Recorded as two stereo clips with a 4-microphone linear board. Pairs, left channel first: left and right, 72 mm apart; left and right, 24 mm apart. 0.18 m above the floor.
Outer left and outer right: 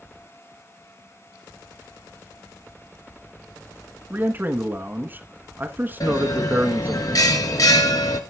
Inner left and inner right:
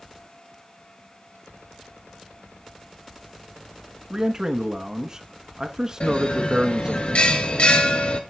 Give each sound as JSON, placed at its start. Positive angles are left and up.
{"t": 4.1, "sound": "a man speaking", "side_deg": -30, "distance_m": 1.8}
{"t": 6.0, "sound": "a bell", "side_deg": 55, "distance_m": 1.5}